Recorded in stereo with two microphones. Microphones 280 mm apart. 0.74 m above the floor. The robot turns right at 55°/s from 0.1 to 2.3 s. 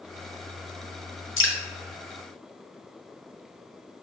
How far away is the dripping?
About 0.8 m.